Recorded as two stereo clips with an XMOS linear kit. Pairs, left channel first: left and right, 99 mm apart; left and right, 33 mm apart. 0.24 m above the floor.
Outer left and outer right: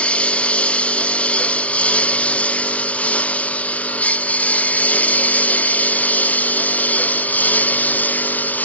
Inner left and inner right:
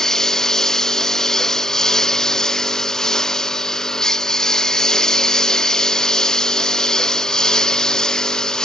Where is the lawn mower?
10° left (ahead or behind); by 8.7 s 15° left (ahead or behind).